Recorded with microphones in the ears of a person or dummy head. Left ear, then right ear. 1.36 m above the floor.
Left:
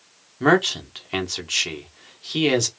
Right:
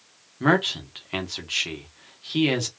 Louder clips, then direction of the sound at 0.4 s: Left 3 dB; 10° left (ahead or behind).